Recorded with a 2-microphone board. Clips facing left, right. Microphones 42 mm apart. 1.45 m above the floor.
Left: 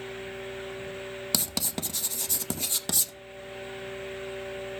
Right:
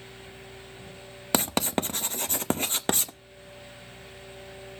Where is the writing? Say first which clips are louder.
Right 10 dB; 40° right (ahead or behind), 0.7 m.